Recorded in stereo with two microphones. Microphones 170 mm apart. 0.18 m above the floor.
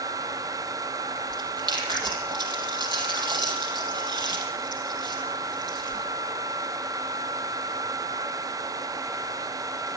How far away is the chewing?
About 6 m.